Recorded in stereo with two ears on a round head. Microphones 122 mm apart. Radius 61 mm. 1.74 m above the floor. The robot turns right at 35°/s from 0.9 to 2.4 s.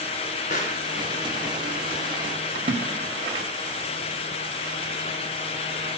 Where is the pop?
55° left (ahead or behind), 2 m.